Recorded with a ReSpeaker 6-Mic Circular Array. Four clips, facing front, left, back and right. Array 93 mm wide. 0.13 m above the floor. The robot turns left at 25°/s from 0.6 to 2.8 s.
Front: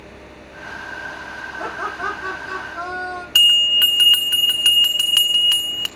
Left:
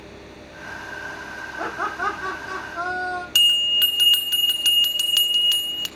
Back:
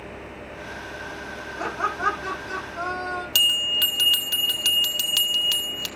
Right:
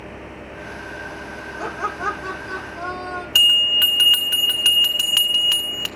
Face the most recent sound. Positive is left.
turn(degrees=-30)